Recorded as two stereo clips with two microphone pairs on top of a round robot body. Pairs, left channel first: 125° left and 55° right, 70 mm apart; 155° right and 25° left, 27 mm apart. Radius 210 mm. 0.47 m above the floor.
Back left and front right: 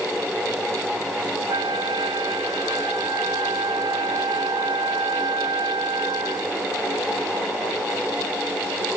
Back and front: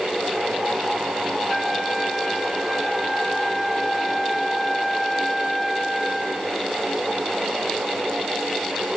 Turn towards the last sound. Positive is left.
turn(degrees=-65)